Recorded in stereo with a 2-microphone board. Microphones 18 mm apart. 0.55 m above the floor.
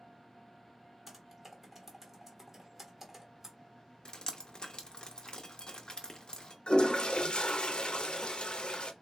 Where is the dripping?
45° left (ahead or behind), 0.8 m.